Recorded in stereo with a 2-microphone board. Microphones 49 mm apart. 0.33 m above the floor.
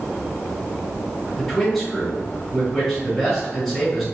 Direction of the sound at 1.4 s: Centre (ahead or behind).